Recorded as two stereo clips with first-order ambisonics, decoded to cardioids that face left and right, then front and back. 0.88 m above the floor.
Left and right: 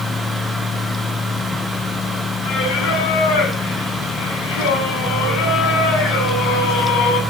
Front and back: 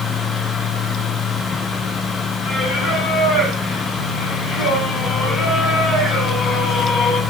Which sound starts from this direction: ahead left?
Singing, at 2.4 s.